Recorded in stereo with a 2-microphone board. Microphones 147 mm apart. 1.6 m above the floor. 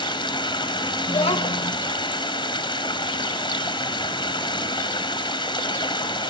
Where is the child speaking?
45° left (ahead or behind), 1.3 m.